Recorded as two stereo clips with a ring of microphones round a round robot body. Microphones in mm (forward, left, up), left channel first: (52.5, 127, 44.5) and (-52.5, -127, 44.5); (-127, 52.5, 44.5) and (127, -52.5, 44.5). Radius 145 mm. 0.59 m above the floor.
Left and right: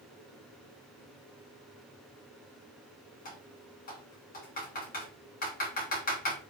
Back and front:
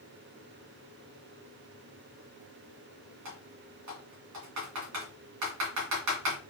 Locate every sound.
3.2 s typing on a keyboard: 5° left, 2 m